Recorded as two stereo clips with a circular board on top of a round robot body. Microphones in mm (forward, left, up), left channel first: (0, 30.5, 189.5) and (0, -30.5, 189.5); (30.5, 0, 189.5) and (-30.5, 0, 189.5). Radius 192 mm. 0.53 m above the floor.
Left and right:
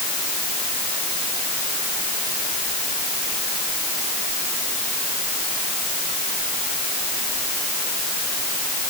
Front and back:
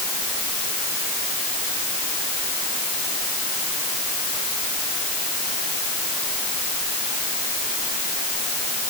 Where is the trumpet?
No trumpet in this recording.